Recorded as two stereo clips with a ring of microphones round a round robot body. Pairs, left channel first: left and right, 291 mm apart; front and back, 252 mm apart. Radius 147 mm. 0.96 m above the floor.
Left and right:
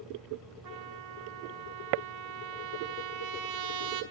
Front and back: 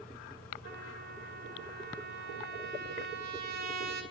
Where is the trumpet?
120° right, 2 m.